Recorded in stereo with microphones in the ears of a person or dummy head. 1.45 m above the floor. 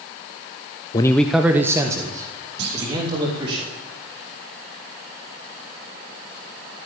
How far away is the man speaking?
About 0.6 m.